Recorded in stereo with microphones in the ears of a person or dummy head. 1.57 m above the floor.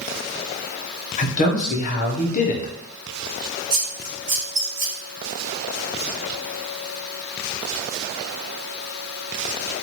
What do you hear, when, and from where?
1.2 s a man speaking: 45° left (ahead or behind), 0.8 m
3.7 s scissors: 30° right (ahead or behind), 1.0 m